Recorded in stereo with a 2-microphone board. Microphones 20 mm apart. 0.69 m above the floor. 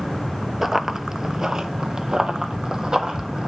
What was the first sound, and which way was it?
Running footsteps, 15° right (ahead or behind).